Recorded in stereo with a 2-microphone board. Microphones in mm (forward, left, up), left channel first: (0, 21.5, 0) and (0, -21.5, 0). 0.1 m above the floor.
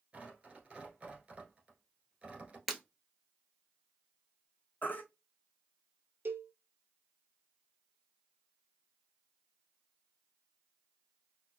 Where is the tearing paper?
25° right (ahead or behind), 1.4 m.